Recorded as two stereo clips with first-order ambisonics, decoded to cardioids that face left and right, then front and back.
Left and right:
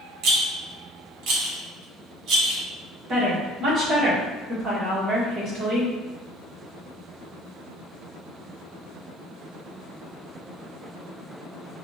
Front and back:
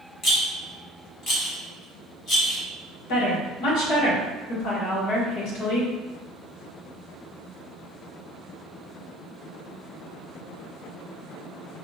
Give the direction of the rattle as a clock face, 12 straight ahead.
2 o'clock.